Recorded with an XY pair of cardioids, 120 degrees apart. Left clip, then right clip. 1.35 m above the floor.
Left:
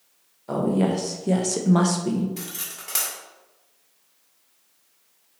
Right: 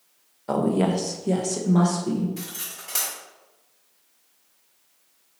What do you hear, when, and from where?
0.5 s a woman speaking: 30° right, 0.9 m; by 2.3 s 55° left, 1.0 m
2.4 s cutlery clinking: 25° left, 1.5 m